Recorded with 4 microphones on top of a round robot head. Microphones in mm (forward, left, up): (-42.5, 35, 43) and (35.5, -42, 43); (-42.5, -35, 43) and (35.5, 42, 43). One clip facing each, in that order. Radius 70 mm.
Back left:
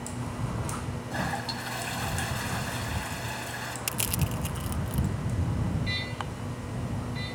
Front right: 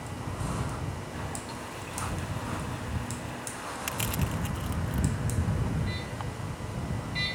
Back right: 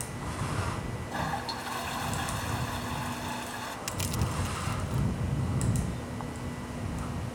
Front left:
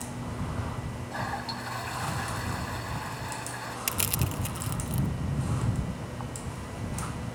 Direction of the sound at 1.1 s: 140° left.